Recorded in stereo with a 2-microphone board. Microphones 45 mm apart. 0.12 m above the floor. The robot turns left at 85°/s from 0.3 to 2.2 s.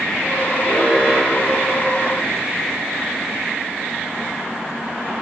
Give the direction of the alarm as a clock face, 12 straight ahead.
10 o'clock.